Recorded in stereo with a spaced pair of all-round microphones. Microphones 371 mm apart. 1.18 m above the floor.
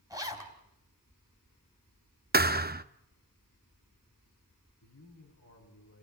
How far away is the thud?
About 0.7 m.